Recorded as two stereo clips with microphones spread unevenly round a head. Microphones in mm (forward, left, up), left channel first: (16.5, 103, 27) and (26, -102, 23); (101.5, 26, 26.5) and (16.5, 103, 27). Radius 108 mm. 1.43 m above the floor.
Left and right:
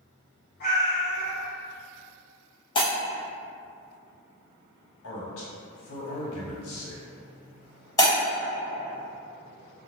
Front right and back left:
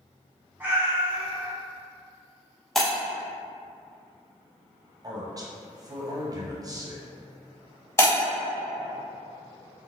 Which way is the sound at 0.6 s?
65° left.